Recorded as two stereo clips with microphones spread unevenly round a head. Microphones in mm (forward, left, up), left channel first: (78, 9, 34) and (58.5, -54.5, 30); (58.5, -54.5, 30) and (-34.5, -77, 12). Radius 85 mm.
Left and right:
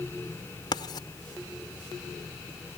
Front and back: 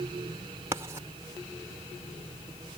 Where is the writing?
120° left.